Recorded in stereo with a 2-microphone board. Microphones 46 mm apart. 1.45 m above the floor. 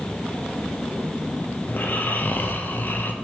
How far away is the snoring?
About 0.7 m.